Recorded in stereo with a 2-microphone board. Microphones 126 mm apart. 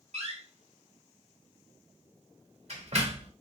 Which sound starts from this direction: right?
A door slam, at 0.1 s.